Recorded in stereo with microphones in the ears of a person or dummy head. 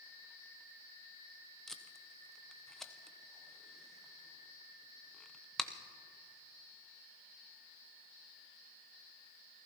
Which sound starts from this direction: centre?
Tape being pulled, at 1.7 s.